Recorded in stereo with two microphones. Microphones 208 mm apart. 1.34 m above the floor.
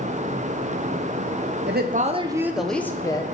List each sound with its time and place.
1.7 s a woman speaking: 55° right (ahead or behind), 0.6 m; by 3.2 s 20° left (ahead or behind), 0.9 m